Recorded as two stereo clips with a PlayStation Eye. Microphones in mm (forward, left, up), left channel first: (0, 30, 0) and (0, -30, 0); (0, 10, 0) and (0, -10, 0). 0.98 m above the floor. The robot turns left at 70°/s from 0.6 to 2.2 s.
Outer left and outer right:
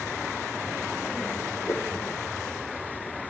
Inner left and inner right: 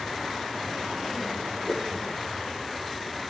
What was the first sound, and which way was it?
A whoosh, 50° left (ahead or behind).